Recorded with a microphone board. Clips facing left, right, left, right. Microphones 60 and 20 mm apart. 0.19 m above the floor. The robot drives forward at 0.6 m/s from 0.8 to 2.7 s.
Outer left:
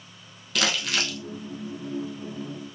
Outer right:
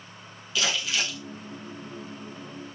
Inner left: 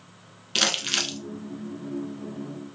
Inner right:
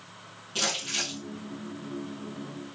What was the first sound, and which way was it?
Crumpling, 65° left (ahead or behind).